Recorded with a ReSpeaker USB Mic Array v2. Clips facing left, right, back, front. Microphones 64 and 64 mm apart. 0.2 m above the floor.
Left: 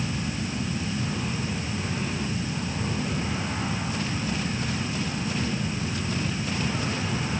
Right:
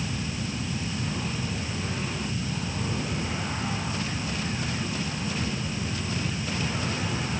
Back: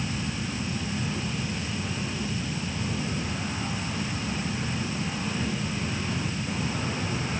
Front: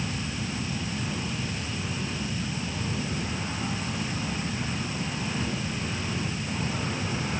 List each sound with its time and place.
Only background noise.